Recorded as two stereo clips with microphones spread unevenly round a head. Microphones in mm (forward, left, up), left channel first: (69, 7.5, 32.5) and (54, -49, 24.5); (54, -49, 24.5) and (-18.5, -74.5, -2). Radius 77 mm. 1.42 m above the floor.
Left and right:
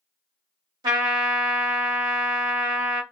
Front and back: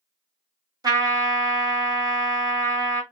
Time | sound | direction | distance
0.8 | a trumpet | 120° right | 1.0 m